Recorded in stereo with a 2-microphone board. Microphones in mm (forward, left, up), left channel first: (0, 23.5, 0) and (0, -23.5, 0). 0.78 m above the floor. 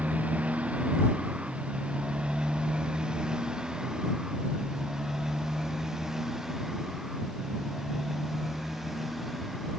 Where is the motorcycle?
30° right (ahead or behind); by 9.8 s centre (ahead or behind).